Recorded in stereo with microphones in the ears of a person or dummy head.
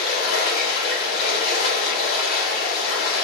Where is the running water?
80° left, 3 m.